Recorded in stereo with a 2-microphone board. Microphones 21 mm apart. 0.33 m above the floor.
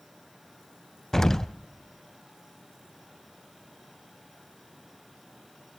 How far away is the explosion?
About 0.5 m.